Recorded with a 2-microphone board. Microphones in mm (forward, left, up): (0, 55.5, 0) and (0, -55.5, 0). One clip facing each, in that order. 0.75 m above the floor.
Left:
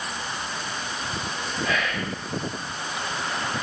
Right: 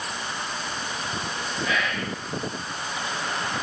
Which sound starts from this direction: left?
Whispering, at 1.6 s.